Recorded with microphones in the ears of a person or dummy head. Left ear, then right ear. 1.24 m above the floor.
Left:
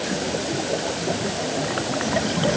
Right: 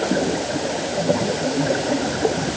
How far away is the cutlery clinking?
I don't hear cutlery clinking.